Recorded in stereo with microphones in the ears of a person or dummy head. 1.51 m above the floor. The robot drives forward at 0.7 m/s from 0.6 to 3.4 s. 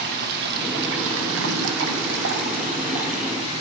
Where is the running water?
55° right (ahead or behind), 1.1 m; by 3.6 s 35° right (ahead or behind), 1.7 m.